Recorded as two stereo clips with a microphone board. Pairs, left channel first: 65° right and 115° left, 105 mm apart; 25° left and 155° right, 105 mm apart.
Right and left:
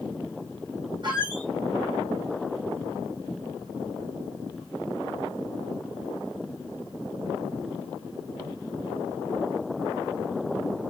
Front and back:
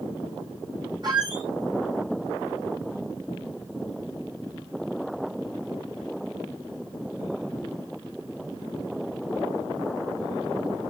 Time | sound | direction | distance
1.0 | a squeak | 155° left | 2.5 m